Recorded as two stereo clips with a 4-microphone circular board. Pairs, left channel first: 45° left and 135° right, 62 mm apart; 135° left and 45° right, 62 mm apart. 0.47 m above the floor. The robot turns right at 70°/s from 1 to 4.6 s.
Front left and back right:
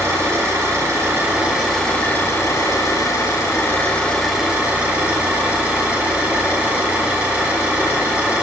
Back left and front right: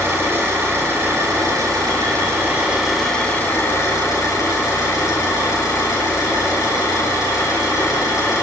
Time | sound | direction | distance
0.0 | an engine running | 95° right | 9.5 m